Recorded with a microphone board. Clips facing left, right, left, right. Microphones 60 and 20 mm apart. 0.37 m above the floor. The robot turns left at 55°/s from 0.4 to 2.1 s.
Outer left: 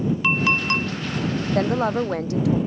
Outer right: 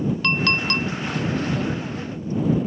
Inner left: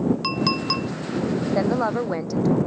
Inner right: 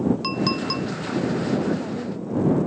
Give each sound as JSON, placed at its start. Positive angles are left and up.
{"t": 0.2, "sound": "a clink", "side_deg": 10}
{"t": 1.6, "sound": "a woman speaking", "azimuth_deg": 120}